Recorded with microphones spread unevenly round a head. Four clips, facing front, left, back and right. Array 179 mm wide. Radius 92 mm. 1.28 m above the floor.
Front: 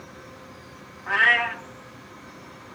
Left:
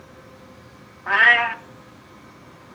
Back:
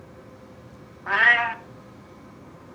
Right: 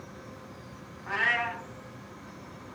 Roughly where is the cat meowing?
Left.